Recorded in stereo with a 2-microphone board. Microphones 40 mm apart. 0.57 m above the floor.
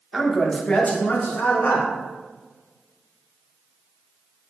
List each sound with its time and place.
0.1 s a man speaking: 5° right (ahead or behind), 0.9 m; by 1.9 s 60° left (ahead or behind), 1.2 m